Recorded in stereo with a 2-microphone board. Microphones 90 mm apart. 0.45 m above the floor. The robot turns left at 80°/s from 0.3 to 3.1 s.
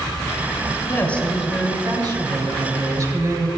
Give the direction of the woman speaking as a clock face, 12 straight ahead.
11 o'clock.